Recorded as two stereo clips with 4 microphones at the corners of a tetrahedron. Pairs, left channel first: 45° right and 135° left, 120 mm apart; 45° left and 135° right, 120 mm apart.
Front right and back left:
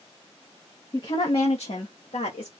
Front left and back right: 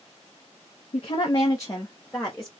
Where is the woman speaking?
10° left, 0.7 m; by 2.5 s 40° right, 1.1 m.